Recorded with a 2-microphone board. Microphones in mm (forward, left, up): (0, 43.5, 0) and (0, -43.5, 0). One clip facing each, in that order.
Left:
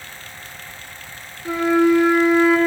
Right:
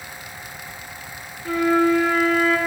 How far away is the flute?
About 0.8 m.